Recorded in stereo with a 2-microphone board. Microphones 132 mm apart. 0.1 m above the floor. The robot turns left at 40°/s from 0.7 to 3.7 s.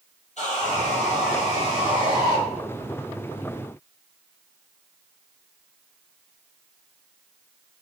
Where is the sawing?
100° left, 1.5 m; by 2.4 s 30° left, 1.5 m.